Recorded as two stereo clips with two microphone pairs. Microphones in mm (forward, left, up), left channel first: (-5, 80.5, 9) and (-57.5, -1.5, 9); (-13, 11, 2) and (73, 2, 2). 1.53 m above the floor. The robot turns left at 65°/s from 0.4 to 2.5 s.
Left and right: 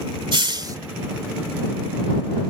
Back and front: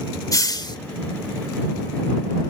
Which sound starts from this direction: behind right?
A hiss, at 0.3 s.